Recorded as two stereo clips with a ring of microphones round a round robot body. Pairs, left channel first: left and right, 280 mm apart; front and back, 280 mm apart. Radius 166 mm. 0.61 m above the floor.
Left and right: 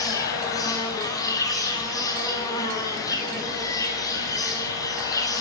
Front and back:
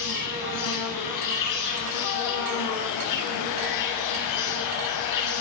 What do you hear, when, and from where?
0.0 s an insect: 15° left, 9 m